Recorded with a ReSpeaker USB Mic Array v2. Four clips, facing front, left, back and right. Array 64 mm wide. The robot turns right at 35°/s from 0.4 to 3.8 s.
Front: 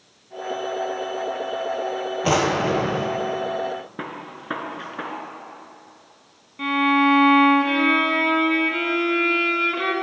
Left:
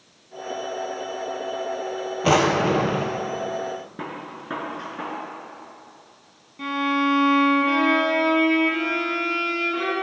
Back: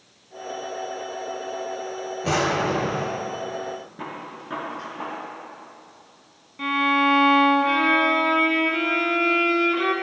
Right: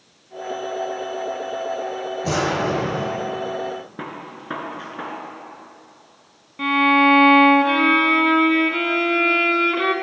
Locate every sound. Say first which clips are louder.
2.2 s a drawer: left 4 dB, front 2 dB; 60° left, 1.0 m; by 3.1 s 90° left, 1.0 m
4.0 s a gunshot: even, front 1 dB; 15° right, 1.2 m
6.6 s a violin: right 7 dB, front 2 dB; 80° right, 0.6 m